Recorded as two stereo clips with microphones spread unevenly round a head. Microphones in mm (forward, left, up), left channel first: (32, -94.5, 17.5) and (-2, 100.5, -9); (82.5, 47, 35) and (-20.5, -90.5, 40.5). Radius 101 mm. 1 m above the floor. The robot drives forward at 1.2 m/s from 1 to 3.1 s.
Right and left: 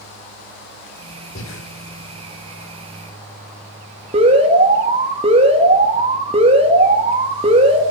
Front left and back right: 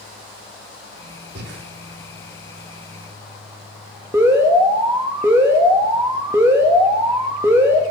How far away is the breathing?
About 2.5 m.